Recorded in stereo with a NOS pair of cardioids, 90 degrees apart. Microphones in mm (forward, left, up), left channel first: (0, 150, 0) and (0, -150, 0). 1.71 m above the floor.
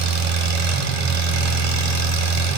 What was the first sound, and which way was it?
An engine running, 65° right.